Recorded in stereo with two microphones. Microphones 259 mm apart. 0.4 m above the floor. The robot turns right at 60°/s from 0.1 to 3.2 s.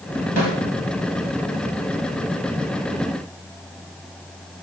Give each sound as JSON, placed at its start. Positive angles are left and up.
{"t": 0.4, "sound": "a snare drum", "side_deg": -60, "distance_m": 1.8}